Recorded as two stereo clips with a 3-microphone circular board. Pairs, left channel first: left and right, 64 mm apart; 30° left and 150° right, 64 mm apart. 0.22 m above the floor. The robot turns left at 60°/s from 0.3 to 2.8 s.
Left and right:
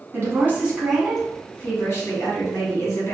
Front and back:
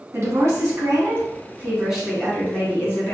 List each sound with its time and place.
0.1 s a woman speaking: 135° right, 2.5 m; by 3.1 s 75° left, 2.5 m